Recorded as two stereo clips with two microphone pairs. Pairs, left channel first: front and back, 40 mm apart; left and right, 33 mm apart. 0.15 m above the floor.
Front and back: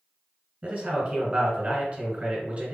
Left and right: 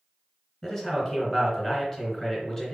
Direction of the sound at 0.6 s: 150° left.